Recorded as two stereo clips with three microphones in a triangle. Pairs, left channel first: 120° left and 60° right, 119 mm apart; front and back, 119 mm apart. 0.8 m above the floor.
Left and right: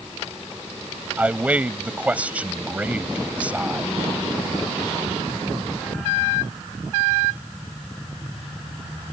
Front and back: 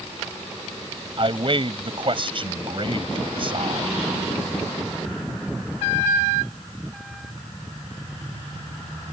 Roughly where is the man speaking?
Behind right.